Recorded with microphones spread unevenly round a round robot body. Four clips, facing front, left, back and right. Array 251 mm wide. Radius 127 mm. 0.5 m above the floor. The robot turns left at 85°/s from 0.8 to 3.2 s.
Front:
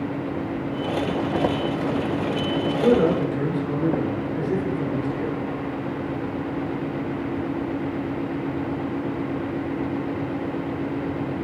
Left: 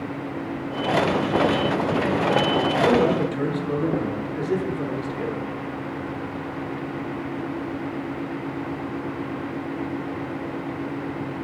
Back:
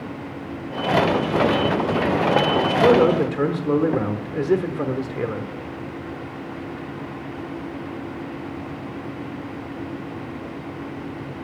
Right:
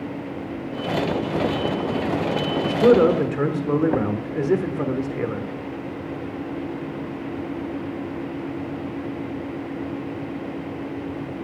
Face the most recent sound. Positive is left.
turn(degrees=-155)